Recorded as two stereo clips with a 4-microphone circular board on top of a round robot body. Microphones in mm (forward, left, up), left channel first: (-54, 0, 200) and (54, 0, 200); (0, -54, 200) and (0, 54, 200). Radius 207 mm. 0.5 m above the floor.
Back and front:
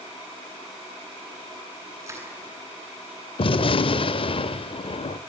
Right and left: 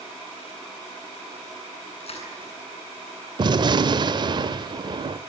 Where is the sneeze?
No sneeze in this recording.